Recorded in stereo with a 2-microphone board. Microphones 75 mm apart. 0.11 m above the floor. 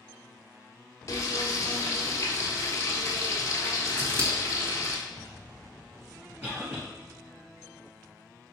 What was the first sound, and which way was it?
Frying, 45° left (ahead or behind).